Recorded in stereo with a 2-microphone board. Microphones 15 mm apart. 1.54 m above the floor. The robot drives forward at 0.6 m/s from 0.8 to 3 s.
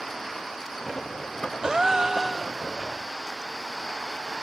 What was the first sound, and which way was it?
A gasp, 50° right (ahead or behind).